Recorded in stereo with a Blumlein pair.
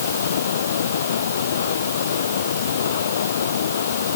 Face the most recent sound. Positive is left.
turn(degrees=65)